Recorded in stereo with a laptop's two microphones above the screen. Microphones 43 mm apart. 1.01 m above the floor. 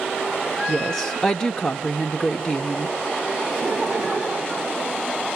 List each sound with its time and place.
0.7 s a woman speaking: 15° left (ahead or behind), 0.9 m
3.5 s laughter: 15° right (ahead or behind), 5.5 m